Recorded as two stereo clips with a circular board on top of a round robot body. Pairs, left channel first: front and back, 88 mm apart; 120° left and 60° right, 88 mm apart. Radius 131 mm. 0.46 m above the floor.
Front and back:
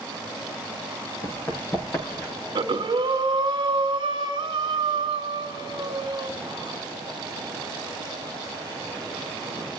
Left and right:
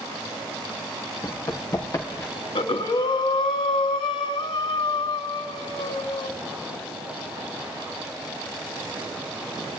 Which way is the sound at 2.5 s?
140° left.